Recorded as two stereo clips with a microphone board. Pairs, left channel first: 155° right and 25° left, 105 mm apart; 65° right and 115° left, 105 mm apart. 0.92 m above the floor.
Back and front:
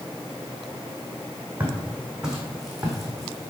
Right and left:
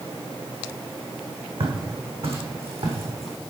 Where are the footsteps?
100° left, 2.5 m; by 3.5 s 115° left, 3.5 m.